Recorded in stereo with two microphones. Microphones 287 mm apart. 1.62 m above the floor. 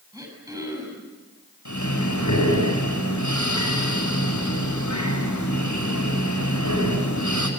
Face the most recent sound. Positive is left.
turn(degrees=90)